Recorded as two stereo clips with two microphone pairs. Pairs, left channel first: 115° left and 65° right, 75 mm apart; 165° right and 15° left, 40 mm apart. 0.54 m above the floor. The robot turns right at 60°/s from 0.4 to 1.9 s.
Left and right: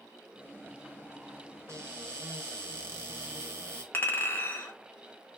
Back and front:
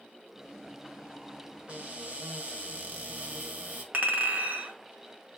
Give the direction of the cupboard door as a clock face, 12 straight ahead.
1 o'clock.